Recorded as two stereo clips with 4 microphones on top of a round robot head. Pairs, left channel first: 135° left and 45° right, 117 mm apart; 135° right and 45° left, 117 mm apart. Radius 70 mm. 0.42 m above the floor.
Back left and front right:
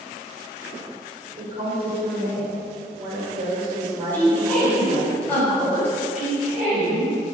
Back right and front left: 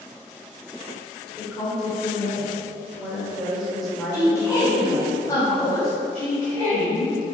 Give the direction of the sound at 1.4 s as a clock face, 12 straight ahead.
1 o'clock.